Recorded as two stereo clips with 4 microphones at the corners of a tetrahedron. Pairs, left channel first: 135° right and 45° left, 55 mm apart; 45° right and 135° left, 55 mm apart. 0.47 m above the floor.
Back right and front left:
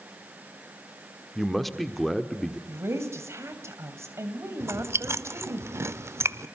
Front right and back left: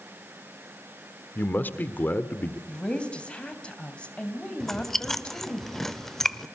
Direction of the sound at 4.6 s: 35° left.